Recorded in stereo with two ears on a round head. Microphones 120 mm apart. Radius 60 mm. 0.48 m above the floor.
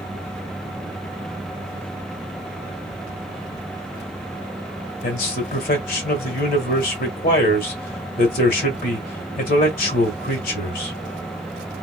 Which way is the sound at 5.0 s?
65° left (ahead or behind).